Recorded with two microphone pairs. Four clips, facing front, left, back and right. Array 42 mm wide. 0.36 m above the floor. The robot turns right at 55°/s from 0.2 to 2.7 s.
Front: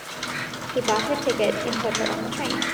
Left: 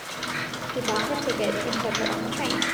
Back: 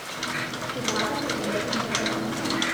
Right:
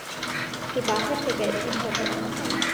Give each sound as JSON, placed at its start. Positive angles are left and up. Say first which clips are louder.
{"t": 0.8, "sound": "a woman speaking", "louder": "right 1 dB, front 5 dB", "azimuth_deg": -35, "distance_m": 8.5}